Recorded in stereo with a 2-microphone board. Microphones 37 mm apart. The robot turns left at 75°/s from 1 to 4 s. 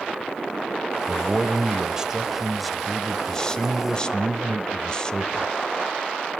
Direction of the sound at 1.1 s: 20° right (ahead or behind).